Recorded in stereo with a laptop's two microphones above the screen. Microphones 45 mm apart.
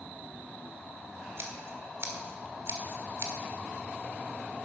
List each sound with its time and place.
1.4 s scissors: 60° right (ahead or behind), 1.6 m